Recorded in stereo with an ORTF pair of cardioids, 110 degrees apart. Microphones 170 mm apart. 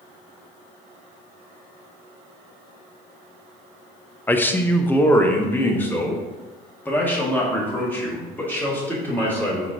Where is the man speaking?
10° left, 0.7 m.